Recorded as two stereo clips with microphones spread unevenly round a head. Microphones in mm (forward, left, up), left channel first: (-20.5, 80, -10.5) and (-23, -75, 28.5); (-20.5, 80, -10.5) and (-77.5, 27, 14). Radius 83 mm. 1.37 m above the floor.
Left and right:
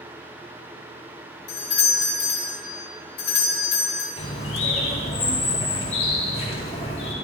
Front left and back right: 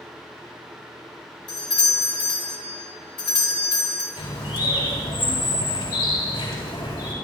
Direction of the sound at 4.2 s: 30° left.